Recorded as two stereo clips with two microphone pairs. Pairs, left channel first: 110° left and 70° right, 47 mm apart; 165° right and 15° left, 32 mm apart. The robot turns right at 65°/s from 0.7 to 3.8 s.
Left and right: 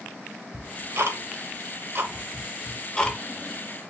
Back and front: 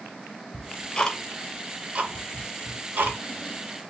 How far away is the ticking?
About 0.9 m.